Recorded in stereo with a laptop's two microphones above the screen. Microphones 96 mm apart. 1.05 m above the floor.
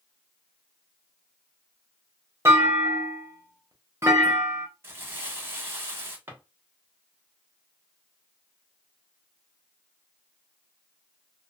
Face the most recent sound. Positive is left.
turn(degrees=-25)  # may be behind; listen again after turning